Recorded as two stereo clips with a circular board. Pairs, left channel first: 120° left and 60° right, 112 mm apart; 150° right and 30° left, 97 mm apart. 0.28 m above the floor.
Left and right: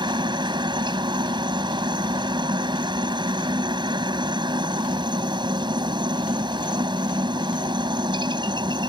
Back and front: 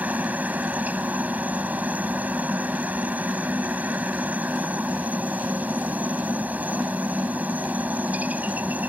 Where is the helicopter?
40° right.